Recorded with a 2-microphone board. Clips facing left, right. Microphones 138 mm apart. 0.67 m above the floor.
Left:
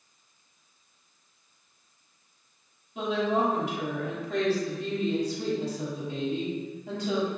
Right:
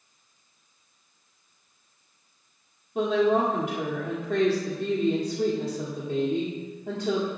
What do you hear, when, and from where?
3.0 s a woman speaking: 55° right (ahead or behind), 1.4 m